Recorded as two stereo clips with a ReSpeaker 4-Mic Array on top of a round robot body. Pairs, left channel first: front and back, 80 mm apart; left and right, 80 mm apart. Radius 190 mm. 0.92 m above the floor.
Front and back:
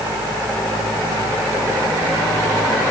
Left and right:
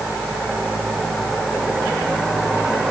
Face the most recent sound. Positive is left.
No sound to turn to.